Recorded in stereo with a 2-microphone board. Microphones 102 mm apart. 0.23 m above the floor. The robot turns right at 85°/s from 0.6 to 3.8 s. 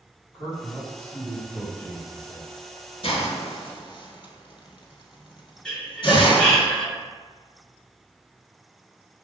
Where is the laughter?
5° left (ahead or behind), 1.4 m.